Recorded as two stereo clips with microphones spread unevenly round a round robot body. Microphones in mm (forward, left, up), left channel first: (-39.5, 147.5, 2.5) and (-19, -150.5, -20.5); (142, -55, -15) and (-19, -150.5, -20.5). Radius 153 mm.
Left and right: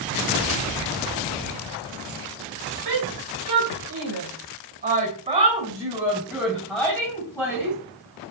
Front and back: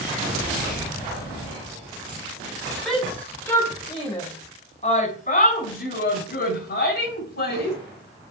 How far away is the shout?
About 2.5 m.